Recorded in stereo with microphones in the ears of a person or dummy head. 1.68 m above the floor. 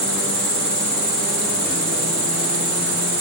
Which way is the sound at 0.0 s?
5° left (ahead or behind).